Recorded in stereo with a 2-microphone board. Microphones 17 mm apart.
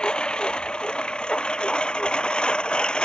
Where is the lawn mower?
70° left (ahead or behind); by 3.0 s 75° left (ahead or behind).